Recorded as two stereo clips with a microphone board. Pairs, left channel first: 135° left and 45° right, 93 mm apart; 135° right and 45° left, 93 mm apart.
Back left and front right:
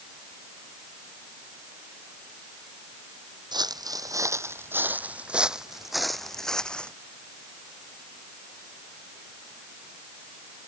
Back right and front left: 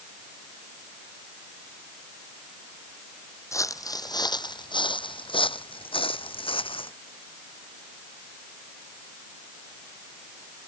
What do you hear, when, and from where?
3.5 s footsteps: 80° right; by 6.9 s 145° right